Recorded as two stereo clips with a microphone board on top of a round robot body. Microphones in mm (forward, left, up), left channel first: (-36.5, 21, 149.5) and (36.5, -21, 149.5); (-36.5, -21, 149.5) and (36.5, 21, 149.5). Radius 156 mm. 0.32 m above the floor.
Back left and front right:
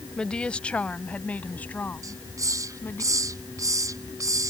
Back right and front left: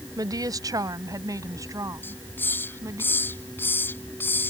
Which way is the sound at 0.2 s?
70° left.